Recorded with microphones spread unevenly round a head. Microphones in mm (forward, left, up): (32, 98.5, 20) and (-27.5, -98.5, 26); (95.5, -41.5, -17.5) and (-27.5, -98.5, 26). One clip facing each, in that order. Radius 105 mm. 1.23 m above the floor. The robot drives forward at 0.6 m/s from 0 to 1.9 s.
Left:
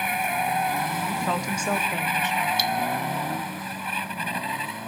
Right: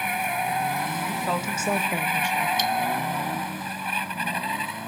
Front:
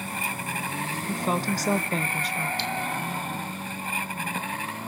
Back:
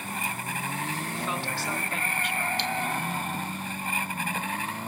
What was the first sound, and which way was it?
A woman speaking, 20° right.